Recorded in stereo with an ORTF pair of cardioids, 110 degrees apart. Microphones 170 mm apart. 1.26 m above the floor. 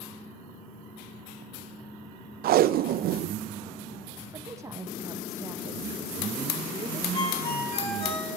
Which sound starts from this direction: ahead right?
Tape being pulled, at 2.4 s.